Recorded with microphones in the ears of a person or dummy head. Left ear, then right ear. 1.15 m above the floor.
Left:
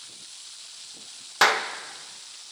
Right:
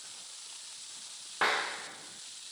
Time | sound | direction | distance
1.4 | a clap | 80° left | 1.0 m